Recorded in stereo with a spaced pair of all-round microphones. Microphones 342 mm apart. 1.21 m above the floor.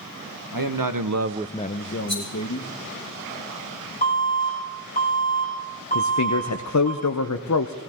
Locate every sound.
0.5 s a man speaking: 80° right, 1.4 m; by 2.7 s 60° left (ahead or behind), 2 m
2.1 s a rattle: 70° right (ahead or behind), 6.5 m
4.0 s an alarm: 25° left (ahead or behind), 5 m
6.0 s a man speaking: 55° left (ahead or behind), 0.7 m